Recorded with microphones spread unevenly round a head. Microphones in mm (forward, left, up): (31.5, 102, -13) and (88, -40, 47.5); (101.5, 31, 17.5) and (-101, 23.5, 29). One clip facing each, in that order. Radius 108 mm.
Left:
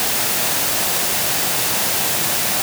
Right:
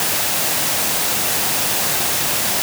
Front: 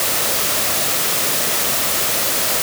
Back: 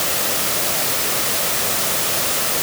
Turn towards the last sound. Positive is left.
No sound to turn to.